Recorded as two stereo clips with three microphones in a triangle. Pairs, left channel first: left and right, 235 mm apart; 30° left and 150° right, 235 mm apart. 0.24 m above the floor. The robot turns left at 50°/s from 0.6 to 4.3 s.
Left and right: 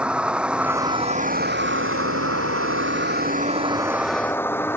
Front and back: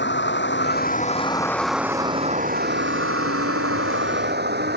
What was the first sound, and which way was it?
A vehicle, 5° right.